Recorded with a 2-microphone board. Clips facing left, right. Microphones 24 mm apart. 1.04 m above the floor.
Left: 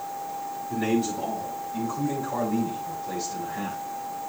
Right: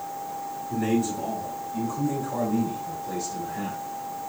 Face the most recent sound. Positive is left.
turn(degrees=30)  # may be behind; listen again after turning